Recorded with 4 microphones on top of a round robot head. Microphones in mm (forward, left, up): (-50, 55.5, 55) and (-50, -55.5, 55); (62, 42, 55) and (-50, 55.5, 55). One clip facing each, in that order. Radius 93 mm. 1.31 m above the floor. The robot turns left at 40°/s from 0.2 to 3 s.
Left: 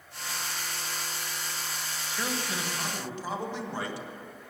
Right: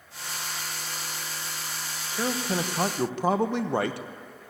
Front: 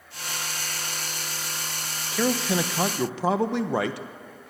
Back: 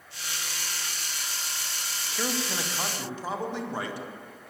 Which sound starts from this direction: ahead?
A man speaking, at 2.1 s.